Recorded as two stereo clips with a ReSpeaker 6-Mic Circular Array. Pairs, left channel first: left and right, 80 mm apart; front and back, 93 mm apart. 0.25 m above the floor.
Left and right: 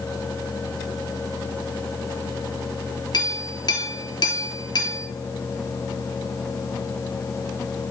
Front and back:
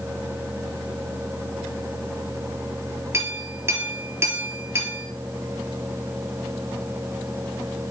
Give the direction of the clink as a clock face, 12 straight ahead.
8 o'clock.